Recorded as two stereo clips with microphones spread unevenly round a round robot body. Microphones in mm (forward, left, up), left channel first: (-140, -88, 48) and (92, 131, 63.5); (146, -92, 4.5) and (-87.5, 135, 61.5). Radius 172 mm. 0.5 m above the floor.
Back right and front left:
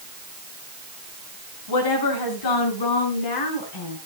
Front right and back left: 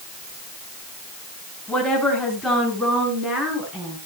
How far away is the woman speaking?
About 6 m.